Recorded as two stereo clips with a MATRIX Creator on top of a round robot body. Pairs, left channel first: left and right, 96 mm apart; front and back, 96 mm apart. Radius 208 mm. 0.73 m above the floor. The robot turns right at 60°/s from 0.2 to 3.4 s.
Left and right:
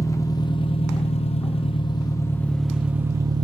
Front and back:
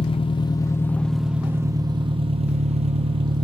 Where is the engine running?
30° left, 0.9 m; by 3.5 s 135° right, 0.9 m.